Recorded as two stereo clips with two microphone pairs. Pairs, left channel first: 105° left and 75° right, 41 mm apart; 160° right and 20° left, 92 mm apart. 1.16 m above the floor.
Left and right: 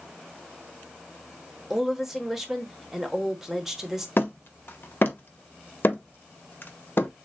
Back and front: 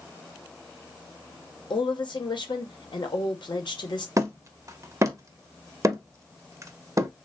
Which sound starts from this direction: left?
Hammering, at 4.2 s.